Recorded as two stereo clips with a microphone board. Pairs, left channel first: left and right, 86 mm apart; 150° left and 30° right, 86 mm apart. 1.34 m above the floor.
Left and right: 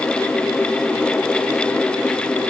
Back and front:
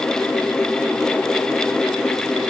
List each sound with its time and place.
Only background noise.